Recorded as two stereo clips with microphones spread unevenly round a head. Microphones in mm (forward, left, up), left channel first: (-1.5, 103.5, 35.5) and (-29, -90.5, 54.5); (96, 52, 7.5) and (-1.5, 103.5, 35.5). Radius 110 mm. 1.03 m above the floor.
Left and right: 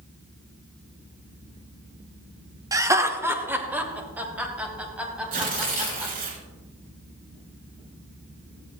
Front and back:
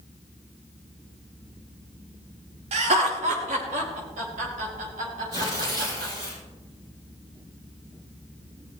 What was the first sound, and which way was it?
Laughter, 170° right.